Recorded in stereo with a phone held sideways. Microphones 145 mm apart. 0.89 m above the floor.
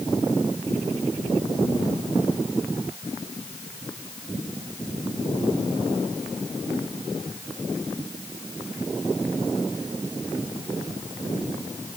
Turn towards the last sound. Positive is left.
No sound to turn to.